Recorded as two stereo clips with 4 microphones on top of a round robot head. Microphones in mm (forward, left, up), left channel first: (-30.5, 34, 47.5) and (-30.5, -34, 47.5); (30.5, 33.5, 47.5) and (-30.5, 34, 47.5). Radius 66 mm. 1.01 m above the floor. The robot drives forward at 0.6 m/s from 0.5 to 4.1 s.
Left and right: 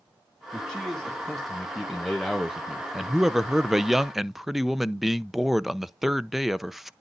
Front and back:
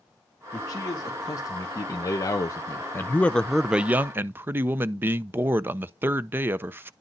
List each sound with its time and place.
0.5 s a man speaking: straight ahead, 1.9 m; by 6.9 s 175° right, 0.6 m